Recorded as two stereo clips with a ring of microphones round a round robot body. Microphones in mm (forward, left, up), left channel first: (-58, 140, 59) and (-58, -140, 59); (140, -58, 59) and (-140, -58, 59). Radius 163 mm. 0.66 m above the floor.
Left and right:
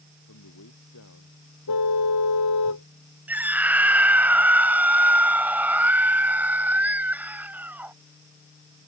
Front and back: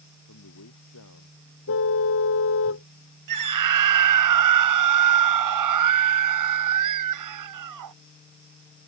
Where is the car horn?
50° left.